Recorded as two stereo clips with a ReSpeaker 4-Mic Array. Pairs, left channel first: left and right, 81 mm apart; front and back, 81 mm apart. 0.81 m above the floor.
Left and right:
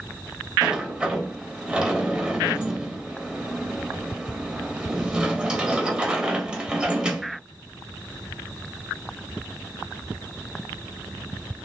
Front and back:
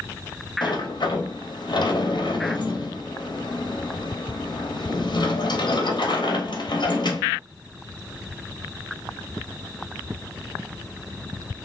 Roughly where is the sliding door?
Ahead.